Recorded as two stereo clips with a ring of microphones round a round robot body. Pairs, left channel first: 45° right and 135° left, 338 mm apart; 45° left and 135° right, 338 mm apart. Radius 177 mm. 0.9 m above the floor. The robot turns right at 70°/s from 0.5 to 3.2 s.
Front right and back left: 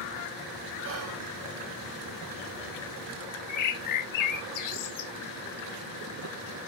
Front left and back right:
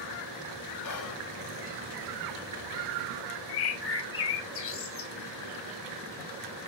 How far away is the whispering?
About 1.2 m.